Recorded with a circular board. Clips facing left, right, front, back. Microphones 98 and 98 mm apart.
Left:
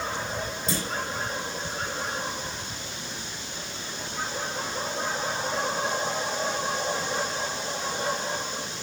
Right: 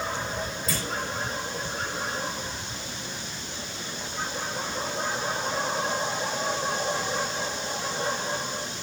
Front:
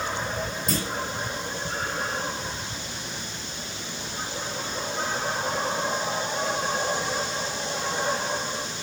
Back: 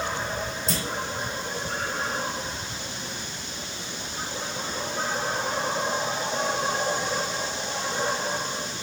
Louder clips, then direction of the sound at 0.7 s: Left 4 dB, front 4 dB; 25° left.